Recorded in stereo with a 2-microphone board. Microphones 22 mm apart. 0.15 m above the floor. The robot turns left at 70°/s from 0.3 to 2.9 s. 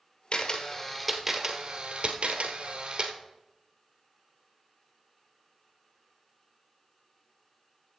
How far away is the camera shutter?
About 1.5 m.